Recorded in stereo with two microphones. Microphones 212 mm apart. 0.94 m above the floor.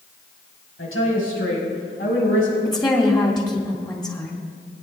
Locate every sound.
0.8 s a woman speaking: 80° left, 5.5 m
2.6 s a woman speaking: 20° left (ahead or behind), 3 m